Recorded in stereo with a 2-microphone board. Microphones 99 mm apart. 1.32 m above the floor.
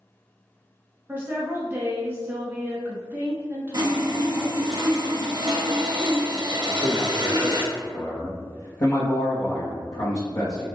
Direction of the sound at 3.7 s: 50° right (ahead or behind).